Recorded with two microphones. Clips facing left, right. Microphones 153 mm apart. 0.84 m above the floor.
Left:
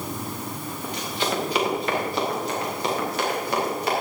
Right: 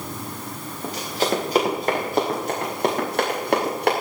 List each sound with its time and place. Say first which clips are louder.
0.8 s running footsteps: right 4 dB; 35° right (ahead or behind), 5.5 m; by 3.9 s 65° right (ahead or behind), 6.5 m